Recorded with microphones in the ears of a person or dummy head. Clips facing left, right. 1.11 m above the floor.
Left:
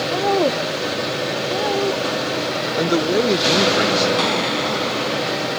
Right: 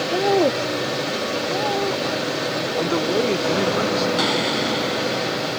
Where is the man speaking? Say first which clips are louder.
Left 3 dB; 25° left (ahead or behind).